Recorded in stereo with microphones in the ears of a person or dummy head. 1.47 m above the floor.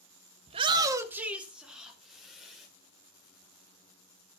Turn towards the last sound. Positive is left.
turn(degrees=5)  # may be behind; listen again after turning